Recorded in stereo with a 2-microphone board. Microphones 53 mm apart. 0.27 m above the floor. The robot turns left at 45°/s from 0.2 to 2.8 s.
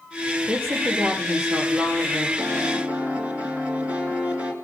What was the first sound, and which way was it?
A woman speaking, 45° right.